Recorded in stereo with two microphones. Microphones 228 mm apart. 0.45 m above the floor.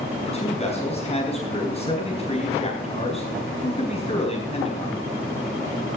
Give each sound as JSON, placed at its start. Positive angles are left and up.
{"t": 0.2, "sound": "a man speaking", "side_deg": 25, "distance_m": 4.0}